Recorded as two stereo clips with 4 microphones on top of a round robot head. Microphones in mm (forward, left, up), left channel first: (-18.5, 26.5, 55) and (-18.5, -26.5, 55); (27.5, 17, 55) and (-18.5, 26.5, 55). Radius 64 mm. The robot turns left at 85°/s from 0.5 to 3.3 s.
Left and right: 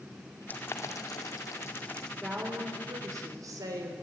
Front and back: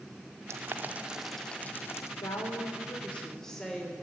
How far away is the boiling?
About 1.7 m.